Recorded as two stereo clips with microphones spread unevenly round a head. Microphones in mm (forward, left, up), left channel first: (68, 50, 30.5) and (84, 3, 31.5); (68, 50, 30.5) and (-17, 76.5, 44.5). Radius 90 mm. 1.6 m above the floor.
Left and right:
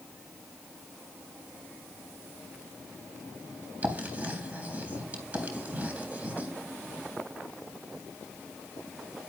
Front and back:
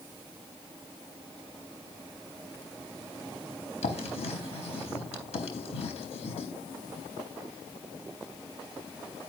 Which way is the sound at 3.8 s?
15° right.